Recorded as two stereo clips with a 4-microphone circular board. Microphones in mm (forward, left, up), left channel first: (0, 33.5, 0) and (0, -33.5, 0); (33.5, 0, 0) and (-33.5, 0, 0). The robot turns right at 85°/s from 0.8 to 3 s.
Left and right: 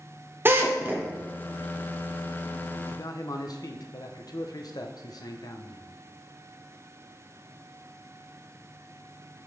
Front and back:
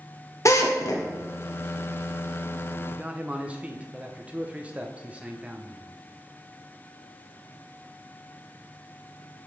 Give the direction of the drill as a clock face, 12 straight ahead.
1 o'clock.